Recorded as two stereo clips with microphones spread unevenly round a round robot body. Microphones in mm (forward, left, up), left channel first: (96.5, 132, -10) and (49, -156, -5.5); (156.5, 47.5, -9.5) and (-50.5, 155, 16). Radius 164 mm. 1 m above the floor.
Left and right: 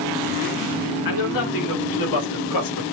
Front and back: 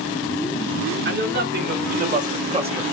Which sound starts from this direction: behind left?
A man speaking, at 1.1 s.